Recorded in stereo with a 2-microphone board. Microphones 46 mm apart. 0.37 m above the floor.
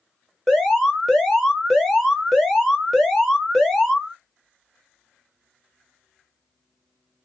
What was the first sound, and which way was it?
An alarm, centre (ahead or behind).